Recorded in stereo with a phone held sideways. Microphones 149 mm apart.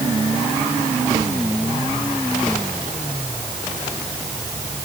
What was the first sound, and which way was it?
Only background noise.